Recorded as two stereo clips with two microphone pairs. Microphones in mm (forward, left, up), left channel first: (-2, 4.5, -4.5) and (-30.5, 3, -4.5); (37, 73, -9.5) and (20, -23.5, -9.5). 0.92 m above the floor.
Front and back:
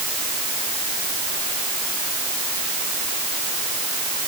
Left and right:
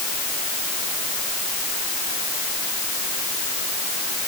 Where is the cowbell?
No cowbell in this recording.